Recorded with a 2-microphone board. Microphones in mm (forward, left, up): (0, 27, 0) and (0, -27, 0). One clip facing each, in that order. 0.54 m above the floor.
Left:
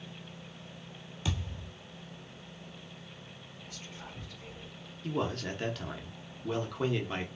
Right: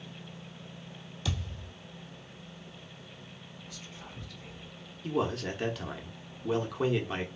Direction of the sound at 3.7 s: 35° left (ahead or behind).